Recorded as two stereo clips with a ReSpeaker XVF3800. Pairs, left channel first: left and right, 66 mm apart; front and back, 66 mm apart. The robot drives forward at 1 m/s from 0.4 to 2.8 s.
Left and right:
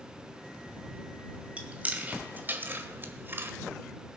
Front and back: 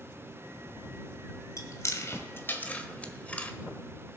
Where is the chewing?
25° right, 2 m; by 3.5 s 55° right, 1.3 m.